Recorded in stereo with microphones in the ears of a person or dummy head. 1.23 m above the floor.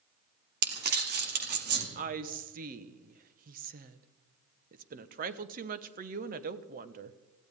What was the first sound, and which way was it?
Crumpling, 60° right (ahead or behind).